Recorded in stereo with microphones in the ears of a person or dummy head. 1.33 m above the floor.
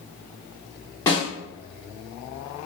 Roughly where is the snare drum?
Centre.